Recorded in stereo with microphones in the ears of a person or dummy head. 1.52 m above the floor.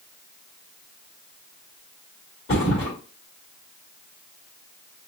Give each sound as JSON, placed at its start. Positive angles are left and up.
{"t": 2.5, "sound": "a thud", "side_deg": 35, "distance_m": 1.7}